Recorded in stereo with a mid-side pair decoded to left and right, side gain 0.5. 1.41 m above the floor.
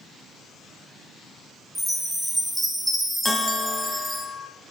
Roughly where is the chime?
Ahead.